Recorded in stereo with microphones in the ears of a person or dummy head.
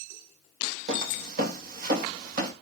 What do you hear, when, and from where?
0.9 s footsteps: 50° right (ahead or behind), 3 m